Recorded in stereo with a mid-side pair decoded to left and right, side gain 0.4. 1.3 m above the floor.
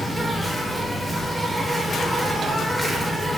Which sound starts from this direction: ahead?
An insect, at 0.0 s.